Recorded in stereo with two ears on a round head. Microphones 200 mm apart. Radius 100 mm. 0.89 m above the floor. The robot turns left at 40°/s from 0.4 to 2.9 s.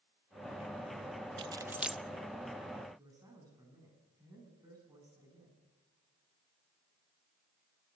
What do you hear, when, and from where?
1.4 s keys jangling: 25° right (ahead or behind), 0.6 m; by 2.0 s centre (ahead or behind), 0.6 m
3.0 s a man speaking: 15° right (ahead or behind), 9 m